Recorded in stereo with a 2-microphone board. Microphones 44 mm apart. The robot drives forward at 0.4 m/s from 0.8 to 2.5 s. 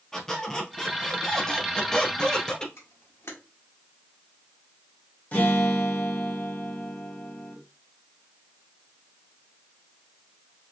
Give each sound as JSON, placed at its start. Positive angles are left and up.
{"t": 0.1, "sound": "a squeak", "side_deg": 10, "distance_m": 1.2}
{"t": 2.8, "sound": "a camera shutter", "side_deg": 65, "distance_m": 1.2}
{"t": 5.3, "sound": "a guitar", "side_deg": 35, "distance_m": 1.1}